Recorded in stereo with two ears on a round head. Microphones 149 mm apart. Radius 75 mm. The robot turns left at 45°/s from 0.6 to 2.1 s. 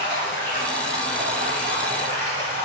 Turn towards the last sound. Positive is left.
turn(degrees=45)